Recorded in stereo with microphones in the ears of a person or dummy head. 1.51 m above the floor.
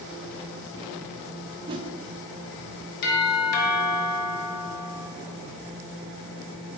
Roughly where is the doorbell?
Left.